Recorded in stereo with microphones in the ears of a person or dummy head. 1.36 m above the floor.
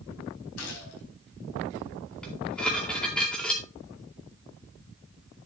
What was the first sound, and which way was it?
A gunshot, 80° left.